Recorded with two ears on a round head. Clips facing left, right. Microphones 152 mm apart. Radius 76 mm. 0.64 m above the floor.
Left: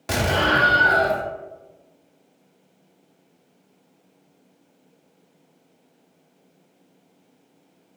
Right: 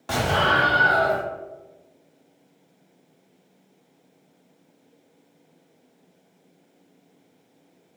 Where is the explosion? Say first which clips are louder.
Left 1 dB; 20° left (ahead or behind), 0.7 m.